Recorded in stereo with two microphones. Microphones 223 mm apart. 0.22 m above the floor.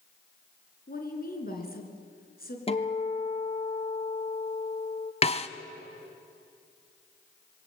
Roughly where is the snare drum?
Left.